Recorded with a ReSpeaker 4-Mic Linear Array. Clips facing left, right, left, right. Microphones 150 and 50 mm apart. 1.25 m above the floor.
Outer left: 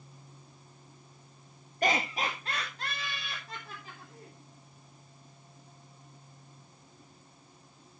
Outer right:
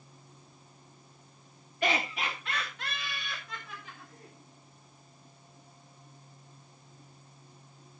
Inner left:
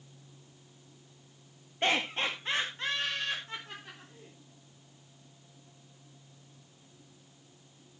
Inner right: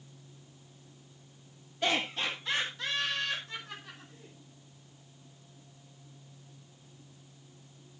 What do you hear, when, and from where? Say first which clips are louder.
1.8 s laughter: outer left 1 dB, inner left 1 dB; 40° left (ahead or behind), 1.6 m; by 4.3 s 35° left (ahead or behind), 5.5 m